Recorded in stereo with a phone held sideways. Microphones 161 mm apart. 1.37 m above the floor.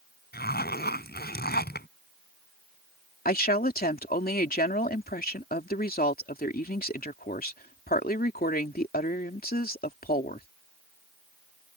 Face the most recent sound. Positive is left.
turn(degrees=70)  # may be behind; listen again after turning